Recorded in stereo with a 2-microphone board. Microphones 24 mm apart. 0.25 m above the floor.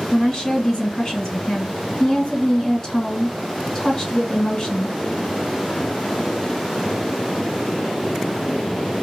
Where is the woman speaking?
25° left (ahead or behind), 1.9 m.